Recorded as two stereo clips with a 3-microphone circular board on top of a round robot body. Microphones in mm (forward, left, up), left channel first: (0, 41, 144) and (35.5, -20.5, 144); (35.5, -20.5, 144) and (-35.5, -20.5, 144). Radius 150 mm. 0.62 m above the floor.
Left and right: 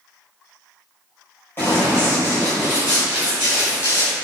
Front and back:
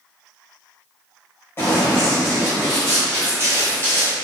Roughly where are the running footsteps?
Ahead left.